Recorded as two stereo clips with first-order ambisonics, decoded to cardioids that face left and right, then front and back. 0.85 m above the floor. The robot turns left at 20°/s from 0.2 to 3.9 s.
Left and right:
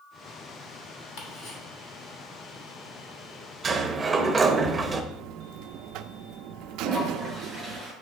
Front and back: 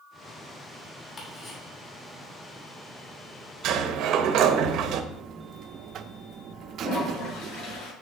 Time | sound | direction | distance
1.2 | ticking | 70° left | 2.5 m
3.6 | a sliding door | 155° right | 0.8 m
5.1 | a buzzer | 125° right | 0.5 m
6.8 | a toilet flushing | 10° left | 5 m